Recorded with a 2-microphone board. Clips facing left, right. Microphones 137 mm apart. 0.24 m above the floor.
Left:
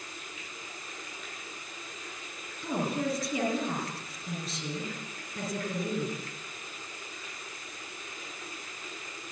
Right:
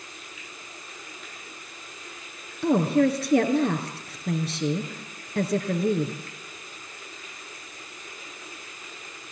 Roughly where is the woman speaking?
Right.